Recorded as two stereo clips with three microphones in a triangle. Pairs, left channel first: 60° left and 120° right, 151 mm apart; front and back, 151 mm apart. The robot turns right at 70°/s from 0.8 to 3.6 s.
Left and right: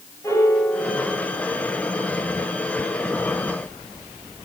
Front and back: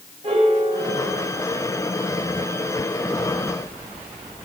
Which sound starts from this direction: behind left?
A piano, at 0.2 s.